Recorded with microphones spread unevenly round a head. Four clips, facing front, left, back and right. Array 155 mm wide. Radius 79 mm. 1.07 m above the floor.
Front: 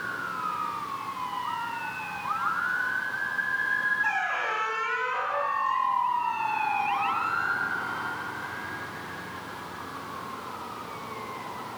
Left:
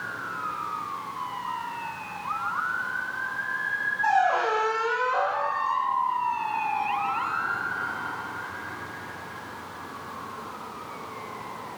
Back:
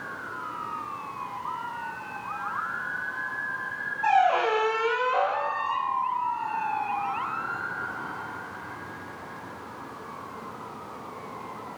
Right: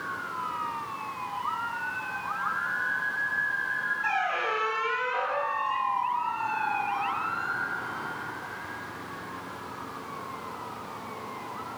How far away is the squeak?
About 2 m.